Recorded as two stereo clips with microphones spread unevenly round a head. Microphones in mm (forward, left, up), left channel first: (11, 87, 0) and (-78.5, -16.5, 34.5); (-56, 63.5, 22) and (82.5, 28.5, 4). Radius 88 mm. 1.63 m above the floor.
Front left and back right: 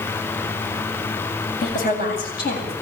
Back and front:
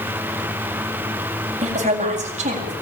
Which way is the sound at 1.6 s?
20° left.